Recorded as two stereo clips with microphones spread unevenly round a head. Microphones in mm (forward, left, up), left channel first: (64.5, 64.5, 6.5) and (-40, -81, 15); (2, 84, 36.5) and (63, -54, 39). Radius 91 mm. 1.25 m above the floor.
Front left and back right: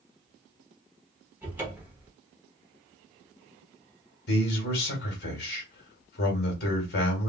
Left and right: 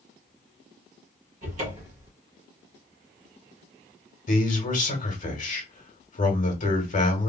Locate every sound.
1.4 s a cupboard door: 55° right, 1.1 m
4.3 s a man speaking: 85° left, 1.6 m